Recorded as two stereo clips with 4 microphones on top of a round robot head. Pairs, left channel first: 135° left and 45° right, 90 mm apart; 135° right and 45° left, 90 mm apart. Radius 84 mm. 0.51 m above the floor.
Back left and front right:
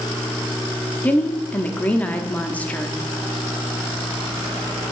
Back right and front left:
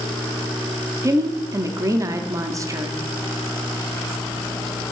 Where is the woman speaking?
70° left, 0.8 m.